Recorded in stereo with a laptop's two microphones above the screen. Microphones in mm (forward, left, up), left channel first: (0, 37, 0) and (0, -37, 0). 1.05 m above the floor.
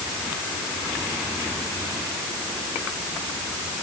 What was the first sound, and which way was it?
Only background noise.